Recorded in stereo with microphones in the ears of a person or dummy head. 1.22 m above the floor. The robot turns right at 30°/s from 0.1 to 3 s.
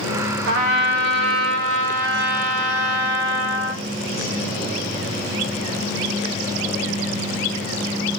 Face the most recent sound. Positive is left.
turn(degrees=-40)